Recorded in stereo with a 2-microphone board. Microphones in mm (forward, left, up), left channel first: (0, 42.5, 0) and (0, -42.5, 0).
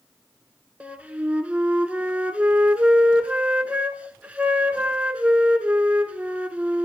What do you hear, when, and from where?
0.8 s a flute: 15° right (ahead or behind), 0.8 m